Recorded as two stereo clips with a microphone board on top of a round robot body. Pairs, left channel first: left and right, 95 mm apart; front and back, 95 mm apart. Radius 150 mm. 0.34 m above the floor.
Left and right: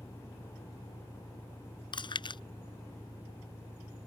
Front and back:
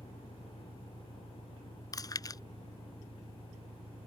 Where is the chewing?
50° left.